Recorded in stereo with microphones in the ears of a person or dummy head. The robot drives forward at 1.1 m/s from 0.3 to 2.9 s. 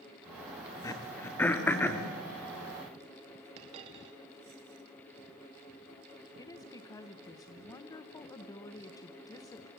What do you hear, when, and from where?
0.8 s throat clearing: 15° left (ahead or behind), 1.4 m; by 2.0 s 5° left (ahead or behind), 2.5 m
3.6 s a dropped coin: 40° right (ahead or behind), 1.9 m
6.4 s a woman speaking: 15° left (ahead or behind), 1.2 m